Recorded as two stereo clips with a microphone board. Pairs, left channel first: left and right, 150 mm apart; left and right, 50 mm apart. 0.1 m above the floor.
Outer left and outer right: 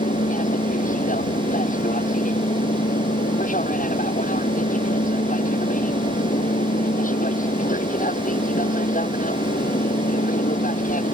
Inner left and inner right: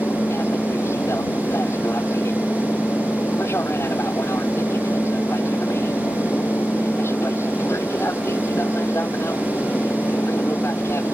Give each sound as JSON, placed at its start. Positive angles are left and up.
{"t": 0.0, "sound": "an aircraft", "side_deg": 60}